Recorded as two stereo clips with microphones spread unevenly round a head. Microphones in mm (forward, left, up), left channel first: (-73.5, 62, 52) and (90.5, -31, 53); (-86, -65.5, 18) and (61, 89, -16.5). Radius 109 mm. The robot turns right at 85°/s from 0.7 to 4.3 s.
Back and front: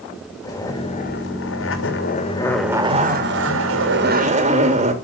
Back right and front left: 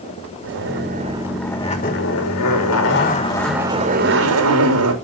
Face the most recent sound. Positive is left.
turn(degrees=25)